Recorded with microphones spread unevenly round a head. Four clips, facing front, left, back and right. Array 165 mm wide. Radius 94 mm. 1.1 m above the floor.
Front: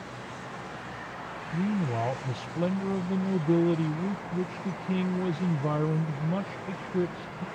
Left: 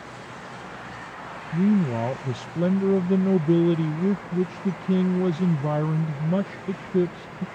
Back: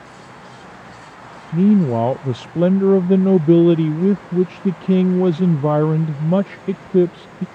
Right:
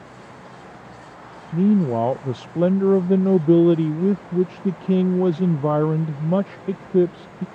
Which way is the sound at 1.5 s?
165° right.